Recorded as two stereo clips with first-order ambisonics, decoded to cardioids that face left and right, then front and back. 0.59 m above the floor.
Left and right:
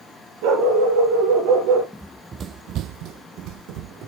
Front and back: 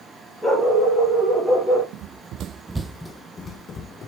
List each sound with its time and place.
0.4 s a dog barking: 90° right, 5 m; by 1.8 s 100° right, 4.5 m
1.9 s running footsteps: 175° right, 0.9 m; by 4.1 s 55° right, 1.6 m